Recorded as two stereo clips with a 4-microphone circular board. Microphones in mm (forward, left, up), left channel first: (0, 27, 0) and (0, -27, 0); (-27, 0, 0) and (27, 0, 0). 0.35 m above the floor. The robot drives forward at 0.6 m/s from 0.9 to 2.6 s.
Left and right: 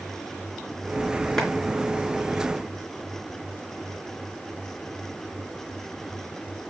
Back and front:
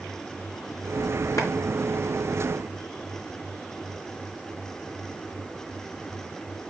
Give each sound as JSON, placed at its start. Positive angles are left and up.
{"t": 1.4, "sound": "a clap", "azimuth_deg": 170, "distance_m": 4.0}